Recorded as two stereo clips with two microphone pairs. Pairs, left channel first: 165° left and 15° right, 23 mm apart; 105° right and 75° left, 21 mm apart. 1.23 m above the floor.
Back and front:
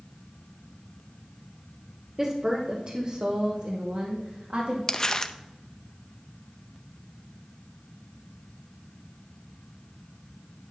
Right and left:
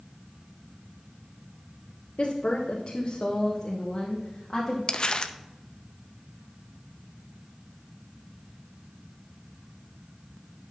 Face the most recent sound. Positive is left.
turn(degrees=-140)